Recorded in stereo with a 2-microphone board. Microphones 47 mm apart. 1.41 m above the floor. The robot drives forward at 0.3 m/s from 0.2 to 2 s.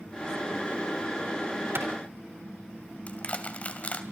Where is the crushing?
30° left (ahead or behind), 2 m.